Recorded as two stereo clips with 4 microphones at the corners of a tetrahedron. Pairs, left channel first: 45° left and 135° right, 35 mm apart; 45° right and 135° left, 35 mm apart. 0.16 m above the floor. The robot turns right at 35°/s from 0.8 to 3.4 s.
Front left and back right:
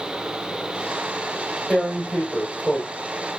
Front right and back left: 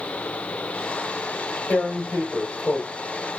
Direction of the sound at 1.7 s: 50° right.